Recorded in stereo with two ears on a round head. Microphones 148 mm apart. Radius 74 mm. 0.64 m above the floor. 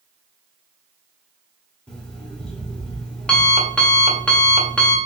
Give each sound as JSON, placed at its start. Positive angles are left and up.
{"t": 1.9, "sound": "an alarm clock", "side_deg": 5, "distance_m": 1.0}